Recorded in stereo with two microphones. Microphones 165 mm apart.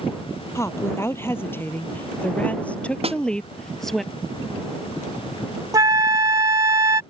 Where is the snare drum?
40° right (ahead or behind).